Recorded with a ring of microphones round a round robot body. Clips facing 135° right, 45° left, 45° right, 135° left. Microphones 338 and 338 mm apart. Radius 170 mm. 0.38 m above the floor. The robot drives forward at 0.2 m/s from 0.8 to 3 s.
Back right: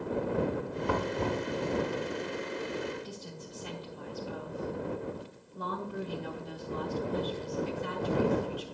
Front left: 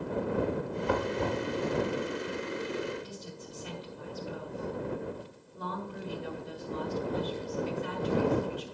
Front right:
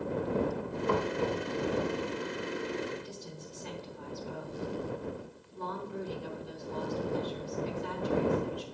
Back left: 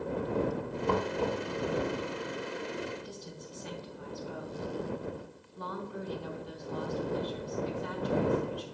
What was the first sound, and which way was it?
Knocking, 115° right.